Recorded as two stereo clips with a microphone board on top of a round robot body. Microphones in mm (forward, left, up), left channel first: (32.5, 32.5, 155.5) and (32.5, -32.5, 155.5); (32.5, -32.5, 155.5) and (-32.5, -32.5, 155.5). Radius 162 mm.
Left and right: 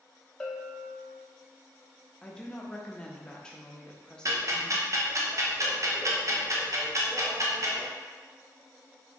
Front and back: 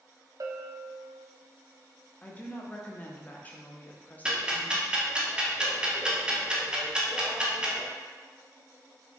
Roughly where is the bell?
Behind.